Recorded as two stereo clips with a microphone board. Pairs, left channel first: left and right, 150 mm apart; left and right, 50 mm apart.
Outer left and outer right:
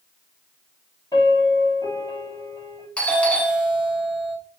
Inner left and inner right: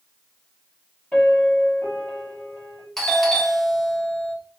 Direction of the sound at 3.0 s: 10° left (ahead or behind).